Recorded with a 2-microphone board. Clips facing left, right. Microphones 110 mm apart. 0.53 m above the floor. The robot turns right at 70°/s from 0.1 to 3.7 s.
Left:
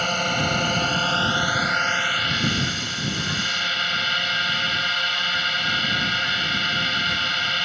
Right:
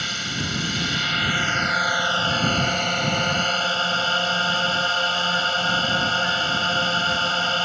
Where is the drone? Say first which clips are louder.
Left 7 dB; 65° left; by 7.7 s 40° right.